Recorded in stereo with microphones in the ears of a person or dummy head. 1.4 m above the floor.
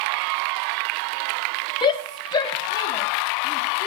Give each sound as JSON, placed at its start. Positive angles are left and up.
{"t": 1.8, "sound": "a shout", "side_deg": 25, "distance_m": 0.6}